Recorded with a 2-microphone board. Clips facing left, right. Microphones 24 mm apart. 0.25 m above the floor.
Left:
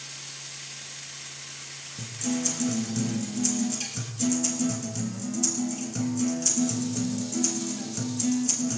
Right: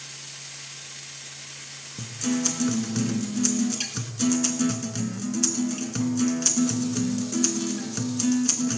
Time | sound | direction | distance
2.0 | a guitar | 40° right (ahead or behind) | 1.6 m